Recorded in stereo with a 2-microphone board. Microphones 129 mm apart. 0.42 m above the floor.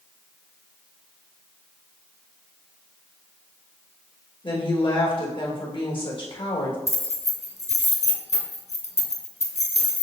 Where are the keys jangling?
55° left (ahead or behind), 0.8 m.